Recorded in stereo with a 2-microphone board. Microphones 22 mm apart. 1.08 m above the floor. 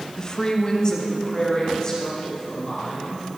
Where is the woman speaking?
30° left (ahead or behind), 0.9 m.